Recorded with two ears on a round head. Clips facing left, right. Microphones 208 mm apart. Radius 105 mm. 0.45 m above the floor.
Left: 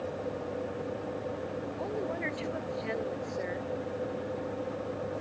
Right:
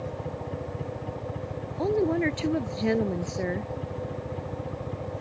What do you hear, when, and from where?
0.0 s a helicopter: 55° right (ahead or behind); by 5.2 s 50° right (ahead or behind)
1.8 s a woman speaking: 60° right (ahead or behind)